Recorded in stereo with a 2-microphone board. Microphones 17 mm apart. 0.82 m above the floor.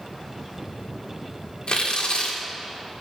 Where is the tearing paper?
50° left (ahead or behind), 2.5 m.